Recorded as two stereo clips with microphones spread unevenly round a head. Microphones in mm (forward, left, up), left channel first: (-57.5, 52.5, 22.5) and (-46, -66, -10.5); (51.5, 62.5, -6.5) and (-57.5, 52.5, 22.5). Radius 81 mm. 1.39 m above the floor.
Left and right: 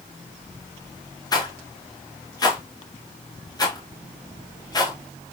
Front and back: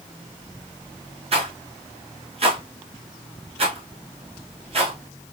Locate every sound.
1.3 s a rattle: 155° left, 1.6 m